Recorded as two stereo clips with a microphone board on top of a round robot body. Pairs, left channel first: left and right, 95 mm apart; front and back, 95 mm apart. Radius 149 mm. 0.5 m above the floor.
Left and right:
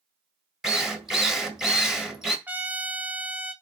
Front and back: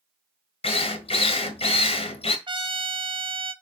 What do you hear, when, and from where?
0.6 s a drill: 5° right, 1.4 m
2.5 s a trumpet: 160° right, 1.2 m